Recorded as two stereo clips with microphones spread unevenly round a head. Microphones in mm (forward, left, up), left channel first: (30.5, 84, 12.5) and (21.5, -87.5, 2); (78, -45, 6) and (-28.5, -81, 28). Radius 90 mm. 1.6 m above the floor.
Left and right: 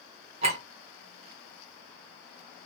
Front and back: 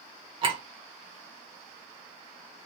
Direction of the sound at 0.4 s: 145° right.